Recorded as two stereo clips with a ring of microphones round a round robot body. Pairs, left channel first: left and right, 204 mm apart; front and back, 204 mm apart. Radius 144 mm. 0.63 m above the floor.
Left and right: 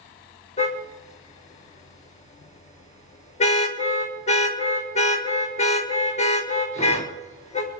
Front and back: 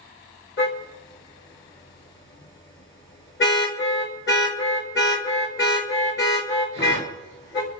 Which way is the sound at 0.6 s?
35° left.